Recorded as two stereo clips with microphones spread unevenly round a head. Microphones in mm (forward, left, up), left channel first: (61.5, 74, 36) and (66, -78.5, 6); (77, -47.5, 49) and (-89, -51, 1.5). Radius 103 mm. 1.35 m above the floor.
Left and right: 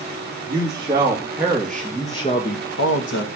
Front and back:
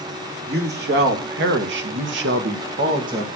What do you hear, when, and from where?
0.5 s a man speaking: 155° right, 2.5 m; by 3.3 s 105° left, 1.3 m